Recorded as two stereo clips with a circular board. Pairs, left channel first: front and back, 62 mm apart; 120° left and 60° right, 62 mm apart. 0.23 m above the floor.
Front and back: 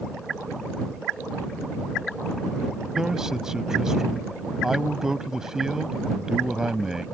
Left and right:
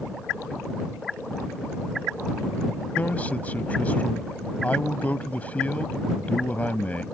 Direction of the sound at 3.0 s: 110° left.